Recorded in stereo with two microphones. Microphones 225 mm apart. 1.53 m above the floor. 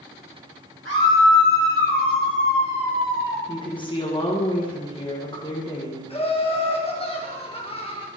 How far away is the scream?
About 2 m.